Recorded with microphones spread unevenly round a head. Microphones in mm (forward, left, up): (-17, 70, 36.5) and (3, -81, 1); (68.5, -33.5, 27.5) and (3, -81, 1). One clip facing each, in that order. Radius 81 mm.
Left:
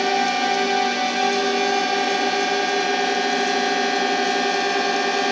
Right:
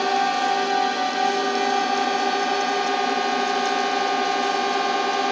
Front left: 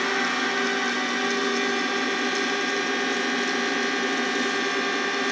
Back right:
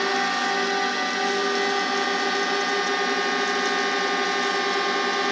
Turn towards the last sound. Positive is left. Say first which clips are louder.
# left 1 dB, back right 2 dB
turn(degrees=165)